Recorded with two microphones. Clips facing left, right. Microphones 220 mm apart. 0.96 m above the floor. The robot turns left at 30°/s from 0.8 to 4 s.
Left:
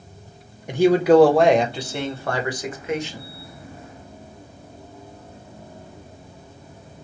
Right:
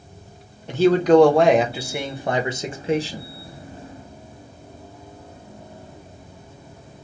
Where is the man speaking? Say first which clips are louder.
Even; 20° left, 0.7 m; by 3.3 s 55° right, 0.7 m.